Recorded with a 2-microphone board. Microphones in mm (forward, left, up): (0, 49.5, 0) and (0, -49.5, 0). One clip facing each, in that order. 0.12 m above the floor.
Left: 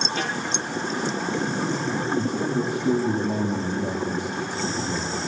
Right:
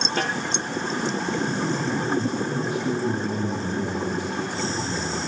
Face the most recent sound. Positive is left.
turn(degrees=40)  # may be behind; listen again after turning